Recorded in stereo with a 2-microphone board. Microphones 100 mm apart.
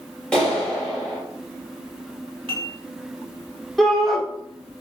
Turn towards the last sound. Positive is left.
turn(degrees=5)  # may be behind; listen again after turning